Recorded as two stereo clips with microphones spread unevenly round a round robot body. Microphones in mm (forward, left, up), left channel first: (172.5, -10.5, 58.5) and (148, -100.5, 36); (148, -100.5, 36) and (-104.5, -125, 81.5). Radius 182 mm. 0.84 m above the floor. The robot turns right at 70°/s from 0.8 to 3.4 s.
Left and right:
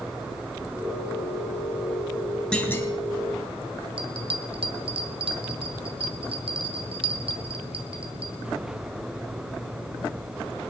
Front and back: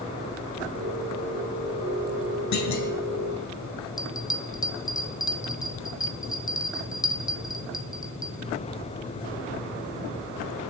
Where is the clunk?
5° right, 3 m; by 2.9 s 25° left, 3 m.